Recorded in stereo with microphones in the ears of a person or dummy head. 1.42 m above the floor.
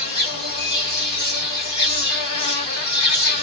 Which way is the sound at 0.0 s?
35° left (ahead or behind).